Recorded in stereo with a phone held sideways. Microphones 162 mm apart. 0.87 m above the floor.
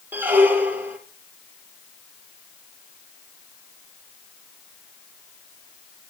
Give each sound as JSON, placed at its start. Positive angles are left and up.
{"t": 0.1, "sound": "a squeak", "side_deg": -10, "distance_m": 3.0}